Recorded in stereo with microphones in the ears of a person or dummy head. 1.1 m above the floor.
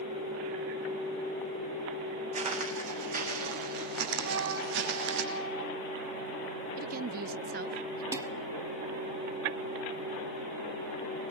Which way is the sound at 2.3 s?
35° right (ahead or behind).